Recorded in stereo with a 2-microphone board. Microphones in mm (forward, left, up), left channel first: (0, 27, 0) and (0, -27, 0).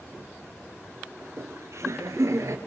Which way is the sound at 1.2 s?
65° right (ahead or behind).